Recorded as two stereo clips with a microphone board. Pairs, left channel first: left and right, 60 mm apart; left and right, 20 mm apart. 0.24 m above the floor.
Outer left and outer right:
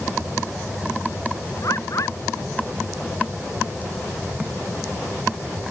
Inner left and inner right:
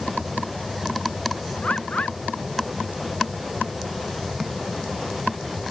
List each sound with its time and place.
1.6 s a bird: 55° left (ahead or behind)